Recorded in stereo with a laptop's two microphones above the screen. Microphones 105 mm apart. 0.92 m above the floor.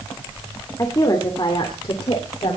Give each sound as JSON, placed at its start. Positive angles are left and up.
{"t": 0.8, "sound": "a woman speaking", "side_deg": 35, "distance_m": 2.0}